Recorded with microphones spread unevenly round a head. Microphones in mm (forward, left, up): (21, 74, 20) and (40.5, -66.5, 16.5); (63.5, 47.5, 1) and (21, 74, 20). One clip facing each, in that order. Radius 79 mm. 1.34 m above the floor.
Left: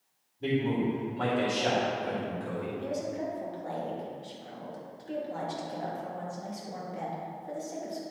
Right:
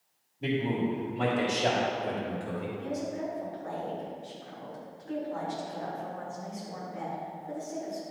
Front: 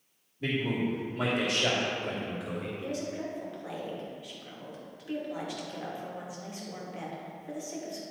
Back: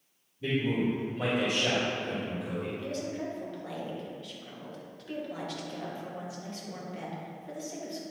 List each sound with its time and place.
0.4 s a man speaking: straight ahead, 2.5 m; by 2.8 s 30° right, 3 m
2.7 s a woman speaking: 45° left, 3 m